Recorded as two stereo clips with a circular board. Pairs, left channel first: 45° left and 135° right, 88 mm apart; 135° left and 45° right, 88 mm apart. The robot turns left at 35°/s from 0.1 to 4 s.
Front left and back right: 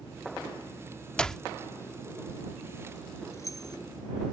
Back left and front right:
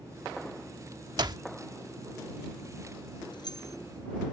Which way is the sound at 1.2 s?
35° right.